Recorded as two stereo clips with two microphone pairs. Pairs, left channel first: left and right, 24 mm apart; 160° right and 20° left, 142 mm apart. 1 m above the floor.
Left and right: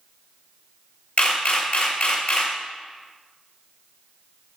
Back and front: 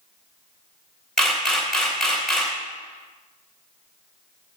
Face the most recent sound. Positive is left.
turn(degrees=115)